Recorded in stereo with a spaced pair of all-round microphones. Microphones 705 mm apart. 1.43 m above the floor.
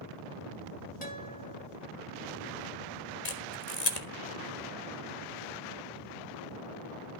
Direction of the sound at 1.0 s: 10° left (ahead or behind).